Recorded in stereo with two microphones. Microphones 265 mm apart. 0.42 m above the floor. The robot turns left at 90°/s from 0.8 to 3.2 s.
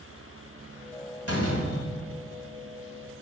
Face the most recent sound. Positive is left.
turn(degrees=-65)